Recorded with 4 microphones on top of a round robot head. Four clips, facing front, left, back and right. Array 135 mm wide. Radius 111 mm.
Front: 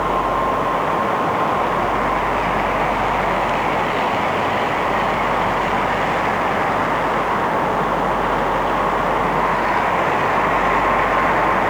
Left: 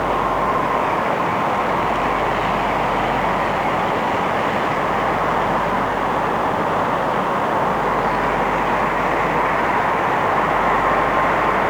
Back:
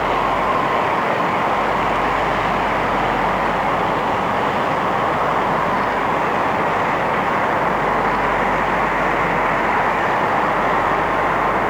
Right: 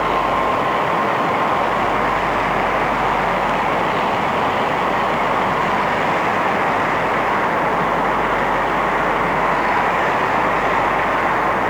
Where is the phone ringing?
No phone ringing in this recording.